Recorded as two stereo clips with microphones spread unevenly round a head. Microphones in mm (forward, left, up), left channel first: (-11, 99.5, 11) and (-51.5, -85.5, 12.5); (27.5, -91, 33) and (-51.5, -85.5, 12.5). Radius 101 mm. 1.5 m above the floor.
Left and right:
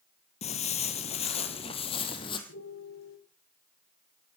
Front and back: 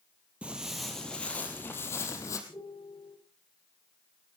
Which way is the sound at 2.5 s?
50° left.